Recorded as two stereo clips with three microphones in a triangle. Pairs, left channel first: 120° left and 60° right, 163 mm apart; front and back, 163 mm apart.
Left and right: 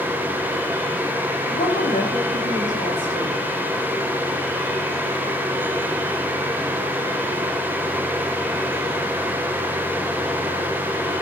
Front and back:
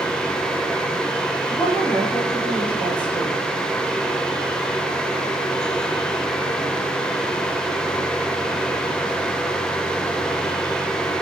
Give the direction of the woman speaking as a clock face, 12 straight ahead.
9 o'clock.